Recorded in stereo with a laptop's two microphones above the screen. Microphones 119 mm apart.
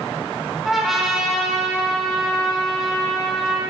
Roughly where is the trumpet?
Centre.